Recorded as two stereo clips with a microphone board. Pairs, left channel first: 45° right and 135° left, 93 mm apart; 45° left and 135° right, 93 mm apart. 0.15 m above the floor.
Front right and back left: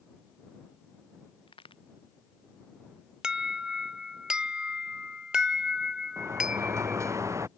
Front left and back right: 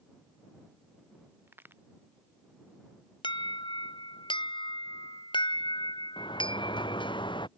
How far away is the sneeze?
No sneeze in this recording.